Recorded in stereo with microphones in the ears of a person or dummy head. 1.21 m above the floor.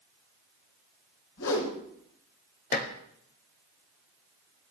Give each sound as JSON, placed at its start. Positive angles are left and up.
{"t": 1.4, "sound": "a whoosh", "side_deg": 70, "distance_m": 4.5}
{"t": 2.7, "sound": "dishes clattering", "side_deg": 45, "distance_m": 1.8}